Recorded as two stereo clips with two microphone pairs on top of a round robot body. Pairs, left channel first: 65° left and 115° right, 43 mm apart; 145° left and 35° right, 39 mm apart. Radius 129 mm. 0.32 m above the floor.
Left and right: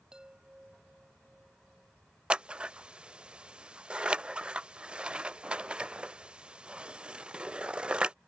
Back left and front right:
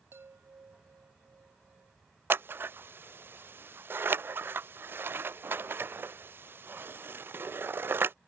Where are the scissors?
45° right.